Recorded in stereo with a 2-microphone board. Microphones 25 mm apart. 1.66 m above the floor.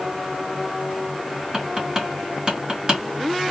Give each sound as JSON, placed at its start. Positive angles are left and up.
{"t": 1.5, "sound": "tapping", "side_deg": -25, "distance_m": 2.5}